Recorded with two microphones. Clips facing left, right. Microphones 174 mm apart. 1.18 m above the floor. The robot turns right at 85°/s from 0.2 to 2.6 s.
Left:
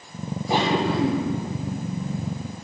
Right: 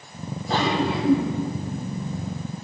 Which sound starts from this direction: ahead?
A cough, at 0.5 s.